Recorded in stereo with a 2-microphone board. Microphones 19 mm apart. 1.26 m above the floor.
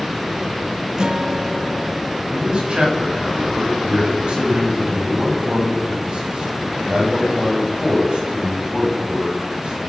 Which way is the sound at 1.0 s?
45° right (ahead or behind).